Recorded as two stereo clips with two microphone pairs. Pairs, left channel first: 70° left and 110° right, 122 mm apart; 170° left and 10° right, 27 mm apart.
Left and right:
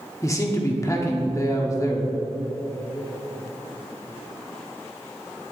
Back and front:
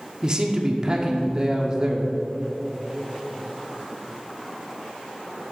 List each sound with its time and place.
0.2 s a man speaking: 25° left, 1.2 m